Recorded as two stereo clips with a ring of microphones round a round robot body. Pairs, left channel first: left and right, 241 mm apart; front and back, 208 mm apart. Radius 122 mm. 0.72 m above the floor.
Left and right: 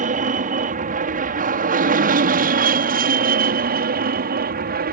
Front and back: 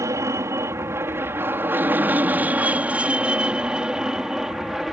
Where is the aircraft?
115° right; by 4.9 s 90° right.